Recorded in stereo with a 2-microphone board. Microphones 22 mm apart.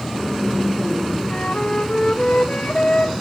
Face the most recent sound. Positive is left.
turn(degrees=50)  # may be behind; listen again after turning